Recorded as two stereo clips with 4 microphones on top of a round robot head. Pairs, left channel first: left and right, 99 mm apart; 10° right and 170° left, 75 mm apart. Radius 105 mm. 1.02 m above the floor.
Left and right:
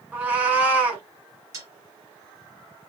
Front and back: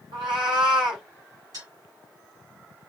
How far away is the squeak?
I don't hear a squeak.